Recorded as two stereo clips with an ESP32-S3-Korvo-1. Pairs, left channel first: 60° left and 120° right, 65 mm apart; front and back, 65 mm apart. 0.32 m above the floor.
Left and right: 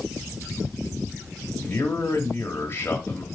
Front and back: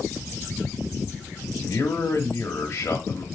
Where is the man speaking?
25° left, 1.4 m.